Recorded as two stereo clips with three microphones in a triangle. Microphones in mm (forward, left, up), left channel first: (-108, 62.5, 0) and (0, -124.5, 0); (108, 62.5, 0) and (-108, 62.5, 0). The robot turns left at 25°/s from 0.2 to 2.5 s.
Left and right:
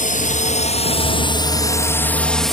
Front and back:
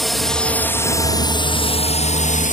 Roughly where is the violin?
I don't hear a violin.